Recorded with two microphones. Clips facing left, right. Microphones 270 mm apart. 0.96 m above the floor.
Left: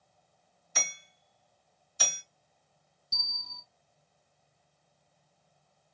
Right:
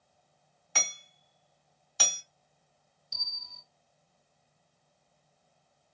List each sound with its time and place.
0.8 s hammering: 80° right, 3 m
3.1 s a bell: 50° left (ahead or behind), 1.4 m